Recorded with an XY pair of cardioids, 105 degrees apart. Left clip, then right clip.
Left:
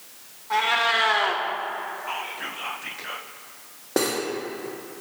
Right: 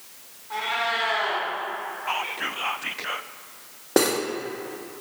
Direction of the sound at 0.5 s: 55° left.